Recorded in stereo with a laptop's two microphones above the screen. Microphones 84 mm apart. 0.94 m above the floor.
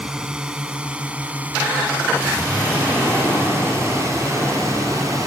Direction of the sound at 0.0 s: 10° right (ahead or behind).